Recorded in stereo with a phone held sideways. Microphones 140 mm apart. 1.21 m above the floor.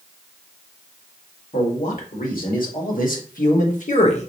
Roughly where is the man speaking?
Left.